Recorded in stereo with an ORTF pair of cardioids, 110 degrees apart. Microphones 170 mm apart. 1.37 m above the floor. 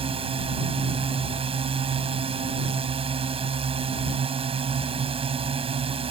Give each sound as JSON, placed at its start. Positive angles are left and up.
{"t": 0.0, "sound": "a drone", "azimuth_deg": -35}